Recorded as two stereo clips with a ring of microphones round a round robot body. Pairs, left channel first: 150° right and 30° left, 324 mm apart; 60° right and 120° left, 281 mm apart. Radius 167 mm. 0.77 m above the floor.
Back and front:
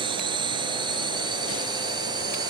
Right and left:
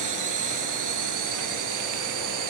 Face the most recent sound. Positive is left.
turn(degrees=110)